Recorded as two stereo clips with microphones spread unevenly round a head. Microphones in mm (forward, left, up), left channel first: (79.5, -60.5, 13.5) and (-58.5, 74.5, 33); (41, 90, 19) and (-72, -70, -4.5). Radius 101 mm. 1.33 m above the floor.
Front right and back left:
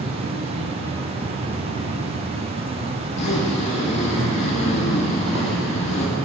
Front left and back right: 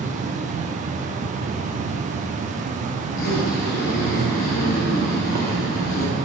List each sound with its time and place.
0.0 s an insect: 165° right, 0.8 m
3.0 s a zipper: 15° left, 1.2 m